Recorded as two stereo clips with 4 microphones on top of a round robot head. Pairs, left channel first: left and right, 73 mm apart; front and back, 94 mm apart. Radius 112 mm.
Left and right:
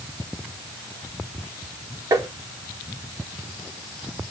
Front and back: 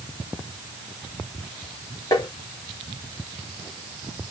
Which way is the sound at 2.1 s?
50° right.